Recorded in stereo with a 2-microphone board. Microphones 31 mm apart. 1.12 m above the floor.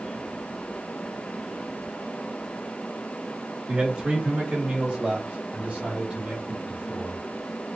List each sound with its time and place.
3.7 s a man speaking: 25° right (ahead or behind), 1.6 m; by 7.2 s 45° right (ahead or behind), 4.5 m